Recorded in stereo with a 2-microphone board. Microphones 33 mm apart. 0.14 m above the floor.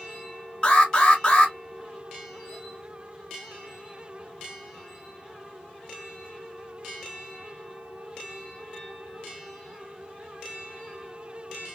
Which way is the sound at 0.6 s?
25° left (ahead or behind).